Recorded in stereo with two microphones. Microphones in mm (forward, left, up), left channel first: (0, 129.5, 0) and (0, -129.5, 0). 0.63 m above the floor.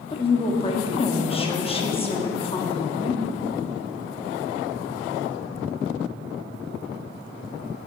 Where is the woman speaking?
20° left (ahead or behind), 1.0 m.